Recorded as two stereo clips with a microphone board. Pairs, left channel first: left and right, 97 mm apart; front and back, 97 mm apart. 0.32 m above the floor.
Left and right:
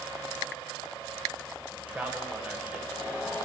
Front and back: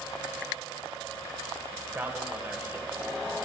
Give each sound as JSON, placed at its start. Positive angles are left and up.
{"t": 1.7, "sound": "a man speaking", "azimuth_deg": -140, "distance_m": 1.2}